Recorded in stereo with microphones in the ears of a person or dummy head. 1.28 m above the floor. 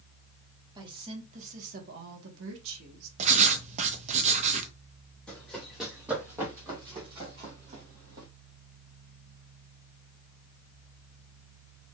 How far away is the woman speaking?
About 1.5 m.